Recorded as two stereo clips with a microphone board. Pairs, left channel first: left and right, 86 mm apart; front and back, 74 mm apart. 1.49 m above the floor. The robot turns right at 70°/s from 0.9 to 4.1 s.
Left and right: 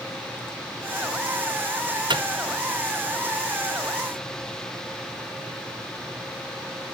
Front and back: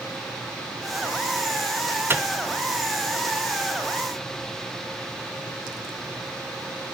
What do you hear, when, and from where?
2.1 s a microwave: 120° right, 0.6 m; by 2.2 s 110° right, 0.6 m